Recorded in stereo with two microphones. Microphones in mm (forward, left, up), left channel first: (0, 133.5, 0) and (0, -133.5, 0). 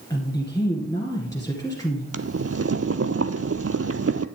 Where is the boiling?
60° right (ahead or behind), 0.5 m.